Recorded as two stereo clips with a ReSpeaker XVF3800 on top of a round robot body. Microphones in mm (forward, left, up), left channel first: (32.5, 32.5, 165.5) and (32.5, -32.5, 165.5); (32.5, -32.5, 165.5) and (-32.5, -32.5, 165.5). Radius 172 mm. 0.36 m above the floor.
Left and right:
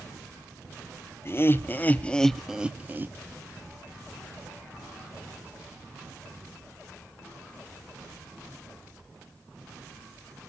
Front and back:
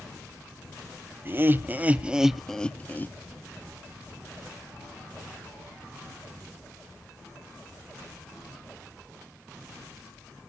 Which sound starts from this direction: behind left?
Laughter, at 1.2 s.